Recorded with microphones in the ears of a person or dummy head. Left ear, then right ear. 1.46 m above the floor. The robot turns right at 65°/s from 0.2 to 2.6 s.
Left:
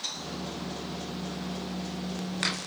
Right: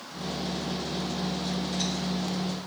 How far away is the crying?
No crying in this recording.